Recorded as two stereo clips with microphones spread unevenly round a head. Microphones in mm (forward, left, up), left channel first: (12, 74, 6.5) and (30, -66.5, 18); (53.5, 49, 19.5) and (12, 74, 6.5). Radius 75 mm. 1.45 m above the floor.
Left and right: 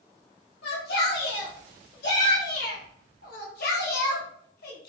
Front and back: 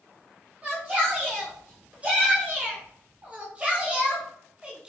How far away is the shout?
About 4.5 m.